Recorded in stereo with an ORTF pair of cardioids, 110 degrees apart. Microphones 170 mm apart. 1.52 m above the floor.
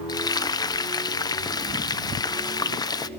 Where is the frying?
25° left, 1.0 m.